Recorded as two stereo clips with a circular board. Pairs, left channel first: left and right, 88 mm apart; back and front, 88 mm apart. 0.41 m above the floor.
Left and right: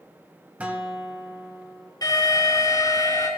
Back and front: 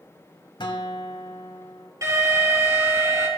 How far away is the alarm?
About 6.5 m.